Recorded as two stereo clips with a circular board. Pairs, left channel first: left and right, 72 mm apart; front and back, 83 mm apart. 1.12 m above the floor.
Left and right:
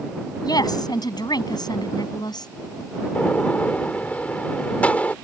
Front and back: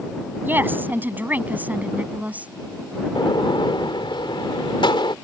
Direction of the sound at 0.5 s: 115° left.